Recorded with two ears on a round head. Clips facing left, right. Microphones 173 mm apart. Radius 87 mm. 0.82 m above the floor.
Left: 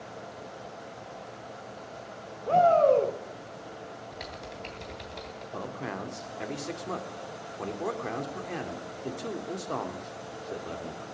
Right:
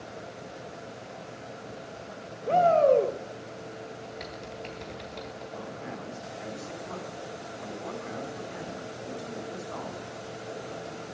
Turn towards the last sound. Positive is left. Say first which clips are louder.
# left 5 dB
turn(degrees=70)  # may be behind; listen again after turning